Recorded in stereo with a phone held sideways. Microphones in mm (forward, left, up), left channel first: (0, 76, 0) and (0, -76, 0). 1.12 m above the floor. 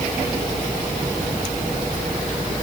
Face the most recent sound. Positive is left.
No sound to turn to.